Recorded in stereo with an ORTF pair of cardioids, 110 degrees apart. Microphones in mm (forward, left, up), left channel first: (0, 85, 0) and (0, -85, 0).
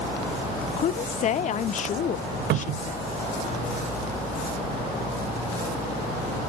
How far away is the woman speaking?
About 0.6 m.